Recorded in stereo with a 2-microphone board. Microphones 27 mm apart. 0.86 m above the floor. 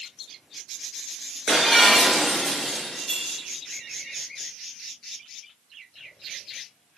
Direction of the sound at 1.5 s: 15° right (ahead or behind).